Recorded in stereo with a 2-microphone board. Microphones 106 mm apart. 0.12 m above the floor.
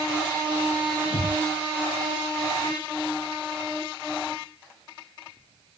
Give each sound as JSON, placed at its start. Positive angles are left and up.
{"t": 1.0, "sound": "breathing", "side_deg": 60, "distance_m": 5.5}